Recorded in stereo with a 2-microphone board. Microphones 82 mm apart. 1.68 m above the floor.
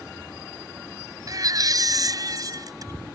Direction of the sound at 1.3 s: 50° right (ahead or behind).